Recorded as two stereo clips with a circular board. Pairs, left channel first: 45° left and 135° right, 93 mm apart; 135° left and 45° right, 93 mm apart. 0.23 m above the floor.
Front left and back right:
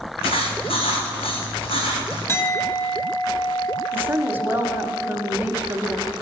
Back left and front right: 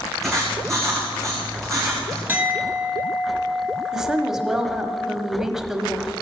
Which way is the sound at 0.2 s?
50° left.